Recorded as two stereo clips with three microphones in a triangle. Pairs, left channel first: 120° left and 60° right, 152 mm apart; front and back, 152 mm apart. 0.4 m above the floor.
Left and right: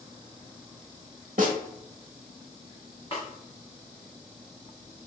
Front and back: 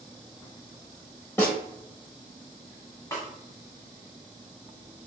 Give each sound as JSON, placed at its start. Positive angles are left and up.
{"t": 1.4, "sound": "a snare drum", "azimuth_deg": -70, "distance_m": 0.7}
{"t": 3.1, "sound": "a snare drum", "azimuth_deg": 70, "distance_m": 1.0}